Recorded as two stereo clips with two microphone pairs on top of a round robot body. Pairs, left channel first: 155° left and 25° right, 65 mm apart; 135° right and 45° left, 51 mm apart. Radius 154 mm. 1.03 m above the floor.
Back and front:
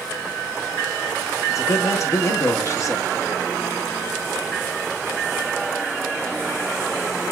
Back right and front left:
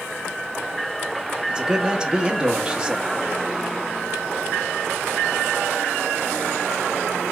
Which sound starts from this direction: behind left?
A man speaking, at 1.5 s.